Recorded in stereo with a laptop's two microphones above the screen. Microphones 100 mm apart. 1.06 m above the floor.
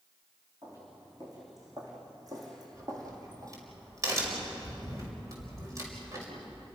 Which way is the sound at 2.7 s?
35° right (ahead or behind).